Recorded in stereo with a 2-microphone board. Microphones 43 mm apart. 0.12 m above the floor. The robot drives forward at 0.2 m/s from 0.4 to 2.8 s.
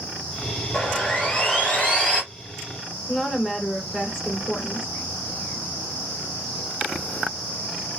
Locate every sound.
0.7 s sawing: 30° left (ahead or behind), 2 m; by 2.2 s 25° left (ahead or behind), 2.5 m
3.1 s a woman speaking: 15° left (ahead or behind), 1.5 m